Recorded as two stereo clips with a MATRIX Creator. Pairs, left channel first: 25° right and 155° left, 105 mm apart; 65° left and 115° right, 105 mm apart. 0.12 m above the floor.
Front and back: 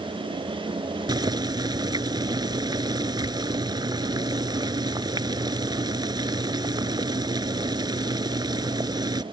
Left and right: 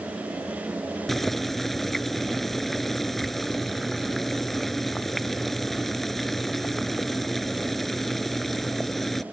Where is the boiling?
155° left.